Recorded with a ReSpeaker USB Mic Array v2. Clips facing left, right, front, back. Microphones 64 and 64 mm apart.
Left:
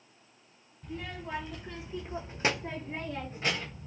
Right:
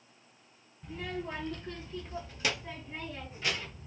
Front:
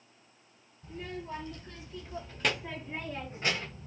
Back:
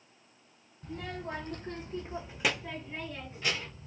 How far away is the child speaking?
About 1.1 m.